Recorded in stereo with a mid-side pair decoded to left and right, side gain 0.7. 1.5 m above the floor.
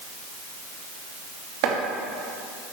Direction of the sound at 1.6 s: 65° right.